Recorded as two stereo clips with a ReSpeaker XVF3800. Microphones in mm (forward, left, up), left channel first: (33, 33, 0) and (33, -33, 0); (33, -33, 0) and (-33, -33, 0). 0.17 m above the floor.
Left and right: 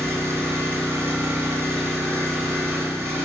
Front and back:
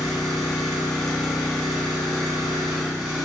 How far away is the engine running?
About 1.1 m.